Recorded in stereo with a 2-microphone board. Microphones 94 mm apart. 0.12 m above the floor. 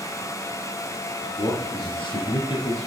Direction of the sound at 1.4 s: 55° left (ahead or behind).